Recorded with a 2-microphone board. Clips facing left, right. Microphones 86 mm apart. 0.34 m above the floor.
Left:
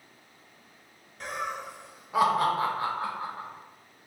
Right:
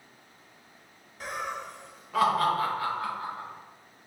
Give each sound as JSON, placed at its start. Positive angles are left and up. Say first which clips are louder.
{"t": 1.2, "sound": "laughter", "louder": "left 1 dB", "side_deg": -5, "distance_m": 1.0}